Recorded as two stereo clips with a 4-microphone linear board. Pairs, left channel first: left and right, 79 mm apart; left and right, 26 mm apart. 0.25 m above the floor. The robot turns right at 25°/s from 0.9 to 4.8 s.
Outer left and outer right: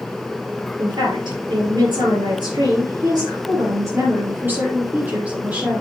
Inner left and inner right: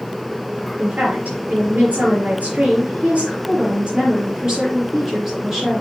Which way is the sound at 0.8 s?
115° right.